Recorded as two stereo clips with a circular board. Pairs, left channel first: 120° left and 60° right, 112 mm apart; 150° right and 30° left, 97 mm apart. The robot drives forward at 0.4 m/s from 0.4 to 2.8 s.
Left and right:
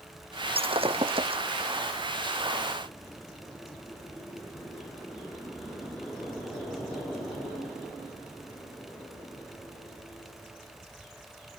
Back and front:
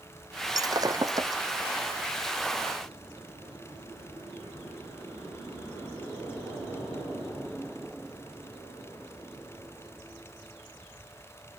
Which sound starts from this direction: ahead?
Breaking glass, at 0.6 s.